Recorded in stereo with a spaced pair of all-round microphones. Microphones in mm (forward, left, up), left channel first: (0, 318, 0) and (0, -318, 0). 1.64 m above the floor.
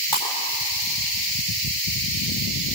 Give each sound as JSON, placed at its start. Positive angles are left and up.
{"t": 0.1, "sound": "breaking glass", "side_deg": 30, "distance_m": 5.0}